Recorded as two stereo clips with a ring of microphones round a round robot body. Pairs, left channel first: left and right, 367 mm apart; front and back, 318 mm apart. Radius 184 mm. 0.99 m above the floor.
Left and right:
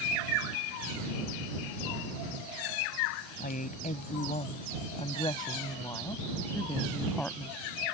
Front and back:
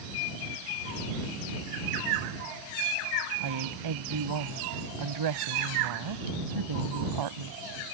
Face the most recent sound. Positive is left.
turn(degrees=180)